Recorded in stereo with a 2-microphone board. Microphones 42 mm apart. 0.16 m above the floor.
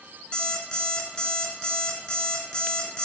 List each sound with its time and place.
0.3 s an alarm clock: 25° left (ahead or behind), 0.7 m